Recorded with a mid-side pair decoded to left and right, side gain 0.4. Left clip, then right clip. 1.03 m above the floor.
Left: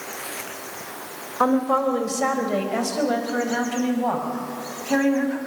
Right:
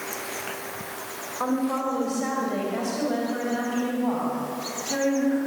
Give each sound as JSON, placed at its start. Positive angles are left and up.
{"t": 1.4, "sound": "a woman speaking", "azimuth_deg": 65, "distance_m": 3.5}